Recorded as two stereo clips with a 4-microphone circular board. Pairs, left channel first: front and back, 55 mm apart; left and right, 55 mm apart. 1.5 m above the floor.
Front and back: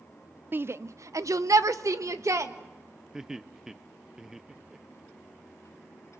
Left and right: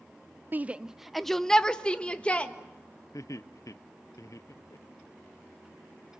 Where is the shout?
135° right, 0.5 m; by 2.5 s 155° left, 1.7 m.